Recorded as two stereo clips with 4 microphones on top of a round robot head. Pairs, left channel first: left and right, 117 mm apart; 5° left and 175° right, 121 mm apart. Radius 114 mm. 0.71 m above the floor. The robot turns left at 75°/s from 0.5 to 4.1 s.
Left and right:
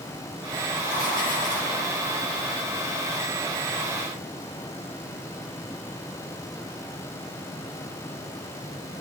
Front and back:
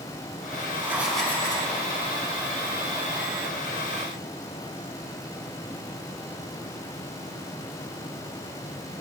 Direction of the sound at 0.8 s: 125° left.